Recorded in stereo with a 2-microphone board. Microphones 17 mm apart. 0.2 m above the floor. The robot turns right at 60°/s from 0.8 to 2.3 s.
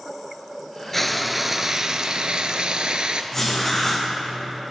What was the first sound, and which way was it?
Frying, 160° left.